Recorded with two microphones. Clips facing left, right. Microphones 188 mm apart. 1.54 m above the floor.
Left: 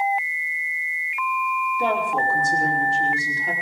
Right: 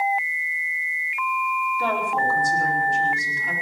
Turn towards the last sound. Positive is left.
turn(degrees=35)  # may be behind; listen again after turning